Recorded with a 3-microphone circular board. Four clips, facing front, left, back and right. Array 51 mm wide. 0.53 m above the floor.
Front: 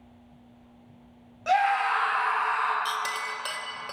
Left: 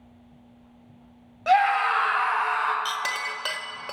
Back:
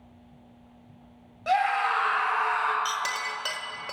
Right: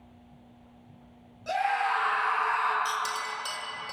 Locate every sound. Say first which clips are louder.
1.5 s a scream: left 7 dB, front 1 dB; 85° left, 3 m; by 2.8 s 115° left, 3.5 m
2.9 s a clink: left 2 dB, even; 100° left, 0.9 m